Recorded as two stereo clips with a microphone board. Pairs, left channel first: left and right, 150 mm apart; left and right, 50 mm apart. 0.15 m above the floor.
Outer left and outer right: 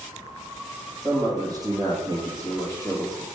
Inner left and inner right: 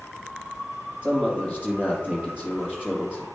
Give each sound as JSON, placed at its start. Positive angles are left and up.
{"t": 1.0, "sound": "a man speaking", "side_deg": -25, "distance_m": 3.0}